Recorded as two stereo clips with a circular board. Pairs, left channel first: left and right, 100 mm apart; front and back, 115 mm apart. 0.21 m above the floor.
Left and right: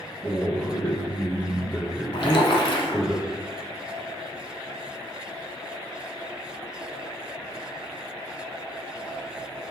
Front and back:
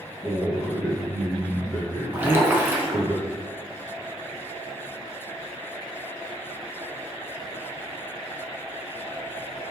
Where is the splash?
110° left, 0.9 m.